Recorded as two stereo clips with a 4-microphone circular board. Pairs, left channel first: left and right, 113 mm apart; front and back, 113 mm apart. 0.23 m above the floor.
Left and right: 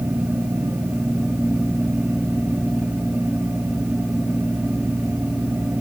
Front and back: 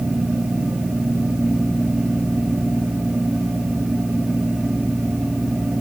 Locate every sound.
Only background noise.